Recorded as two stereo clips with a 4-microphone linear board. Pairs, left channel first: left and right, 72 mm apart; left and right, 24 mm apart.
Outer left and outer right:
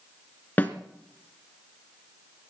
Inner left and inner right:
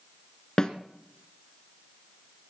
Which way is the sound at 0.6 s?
25° left (ahead or behind).